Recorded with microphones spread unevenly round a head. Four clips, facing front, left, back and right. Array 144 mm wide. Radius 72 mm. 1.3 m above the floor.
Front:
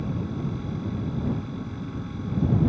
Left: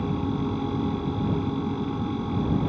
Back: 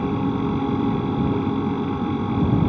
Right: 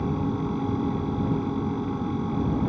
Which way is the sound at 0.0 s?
175° right.